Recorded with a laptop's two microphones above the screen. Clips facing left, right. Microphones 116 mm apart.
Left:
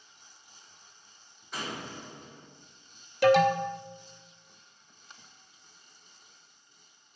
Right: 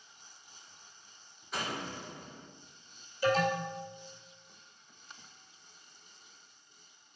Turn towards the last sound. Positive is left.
turn(degrees=75)  # may be behind; listen again after turning